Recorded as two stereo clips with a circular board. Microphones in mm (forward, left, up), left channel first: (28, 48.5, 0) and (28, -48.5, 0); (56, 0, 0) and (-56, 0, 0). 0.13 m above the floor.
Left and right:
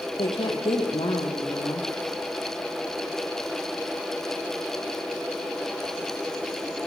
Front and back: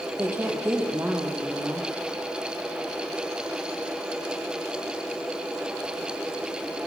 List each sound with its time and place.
0.2 s a woman speaking: 110° left, 4.5 m